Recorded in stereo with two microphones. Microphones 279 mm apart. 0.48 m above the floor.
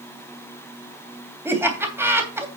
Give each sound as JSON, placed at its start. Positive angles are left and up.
{"t": 1.4, "sound": "laughter", "side_deg": -10, "distance_m": 3.0}